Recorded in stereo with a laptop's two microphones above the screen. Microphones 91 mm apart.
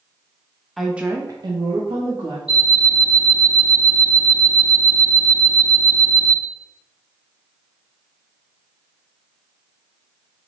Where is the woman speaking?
Centre (ahead or behind), 0.8 m; by 2.4 s 70° right (ahead or behind), 1.3 m.